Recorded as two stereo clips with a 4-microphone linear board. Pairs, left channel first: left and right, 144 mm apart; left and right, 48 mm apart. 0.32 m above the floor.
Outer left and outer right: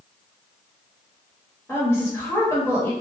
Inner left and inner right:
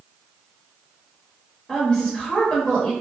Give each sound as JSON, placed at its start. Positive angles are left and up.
{"t": 1.7, "sound": "a woman speaking", "side_deg": 15, "distance_m": 1.2}